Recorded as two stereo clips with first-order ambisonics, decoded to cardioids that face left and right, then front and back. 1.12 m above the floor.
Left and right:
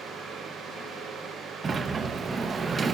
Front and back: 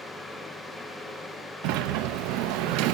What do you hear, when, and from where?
1.6 s a sliding door: 160° right, 0.8 m